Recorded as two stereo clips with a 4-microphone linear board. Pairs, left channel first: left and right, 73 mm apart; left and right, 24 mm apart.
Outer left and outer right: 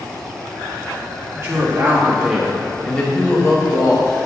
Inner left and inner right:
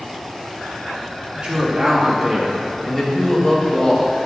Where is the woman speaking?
35° right (ahead or behind), 2.5 m; by 4.3 s 60° left (ahead or behind), 2 m.